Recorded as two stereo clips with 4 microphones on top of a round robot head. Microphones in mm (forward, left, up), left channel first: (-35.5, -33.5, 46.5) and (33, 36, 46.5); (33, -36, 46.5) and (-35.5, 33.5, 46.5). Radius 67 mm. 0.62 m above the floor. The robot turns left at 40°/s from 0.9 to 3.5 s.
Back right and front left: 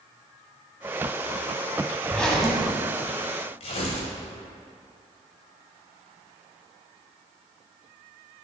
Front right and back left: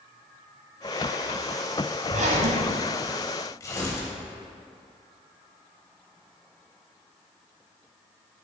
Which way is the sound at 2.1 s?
150° left.